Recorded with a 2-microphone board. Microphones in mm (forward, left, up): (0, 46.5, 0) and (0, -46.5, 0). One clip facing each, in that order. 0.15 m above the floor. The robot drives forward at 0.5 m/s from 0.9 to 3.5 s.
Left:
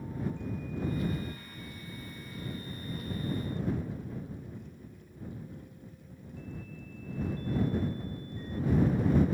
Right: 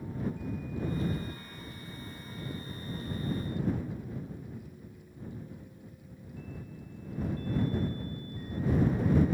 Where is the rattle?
No rattle in this recording.